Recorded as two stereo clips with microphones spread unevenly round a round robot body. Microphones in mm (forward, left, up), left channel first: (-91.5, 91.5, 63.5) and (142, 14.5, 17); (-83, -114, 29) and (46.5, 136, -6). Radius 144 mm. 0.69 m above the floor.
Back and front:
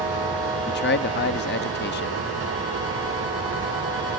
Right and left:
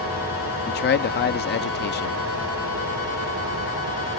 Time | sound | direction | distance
0.7 | a man speaking | 160° right | ?